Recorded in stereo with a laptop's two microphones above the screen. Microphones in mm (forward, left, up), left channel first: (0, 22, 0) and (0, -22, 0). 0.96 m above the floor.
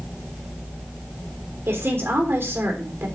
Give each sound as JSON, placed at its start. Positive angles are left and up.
{"t": 1.7, "sound": "a woman speaking", "side_deg": -65, "distance_m": 3.0}